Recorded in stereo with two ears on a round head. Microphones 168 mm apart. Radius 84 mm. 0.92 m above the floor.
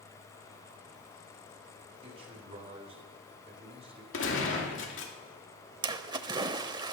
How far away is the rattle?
No rattle in this recording.